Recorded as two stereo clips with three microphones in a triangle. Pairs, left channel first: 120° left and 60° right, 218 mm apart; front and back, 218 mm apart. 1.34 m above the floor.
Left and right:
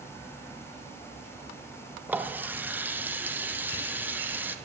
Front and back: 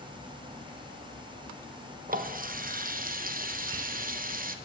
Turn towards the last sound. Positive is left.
turn(degrees=-140)